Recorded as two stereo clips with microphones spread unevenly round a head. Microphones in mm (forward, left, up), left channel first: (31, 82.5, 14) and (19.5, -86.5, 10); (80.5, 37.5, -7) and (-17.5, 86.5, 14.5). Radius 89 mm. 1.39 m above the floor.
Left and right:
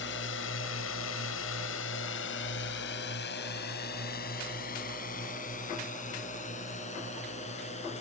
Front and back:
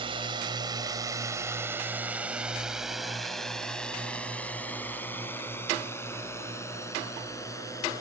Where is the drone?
115° left; by 8.0 s 35° left.